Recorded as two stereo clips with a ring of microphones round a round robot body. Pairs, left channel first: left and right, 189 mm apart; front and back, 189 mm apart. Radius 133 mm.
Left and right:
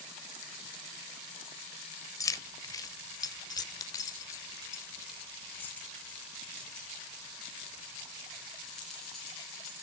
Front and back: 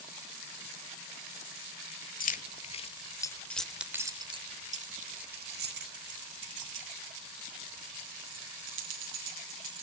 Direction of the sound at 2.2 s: 20° left.